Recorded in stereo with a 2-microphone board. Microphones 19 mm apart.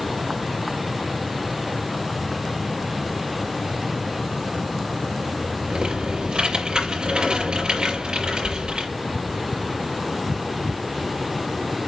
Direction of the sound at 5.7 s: 55° right (ahead or behind).